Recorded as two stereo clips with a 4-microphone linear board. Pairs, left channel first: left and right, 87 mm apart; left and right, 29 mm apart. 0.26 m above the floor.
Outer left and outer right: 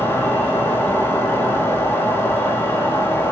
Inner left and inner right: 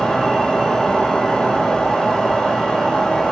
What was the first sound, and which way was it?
An insect, 20° left (ahead or behind).